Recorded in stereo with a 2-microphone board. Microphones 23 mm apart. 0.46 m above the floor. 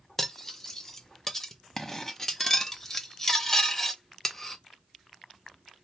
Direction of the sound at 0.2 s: 20° left (ahead or behind).